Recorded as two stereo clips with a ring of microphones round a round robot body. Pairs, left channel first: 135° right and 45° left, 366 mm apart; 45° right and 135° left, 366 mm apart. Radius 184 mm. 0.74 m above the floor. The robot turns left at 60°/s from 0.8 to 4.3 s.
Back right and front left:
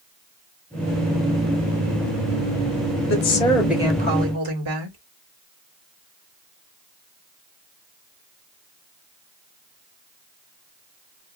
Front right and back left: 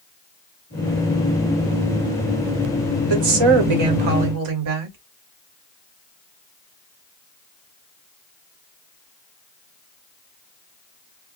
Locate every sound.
3.1 s a woman speaking: 170° left, 2.5 m; by 5.0 s 95° left, 2.5 m